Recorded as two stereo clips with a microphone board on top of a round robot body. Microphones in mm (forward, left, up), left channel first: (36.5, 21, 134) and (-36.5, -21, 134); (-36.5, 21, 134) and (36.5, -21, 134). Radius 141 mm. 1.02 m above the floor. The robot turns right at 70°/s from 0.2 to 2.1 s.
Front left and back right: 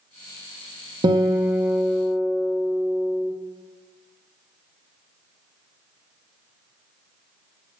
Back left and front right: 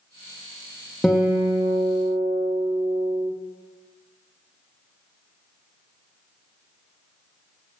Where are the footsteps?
No footsteps in this recording.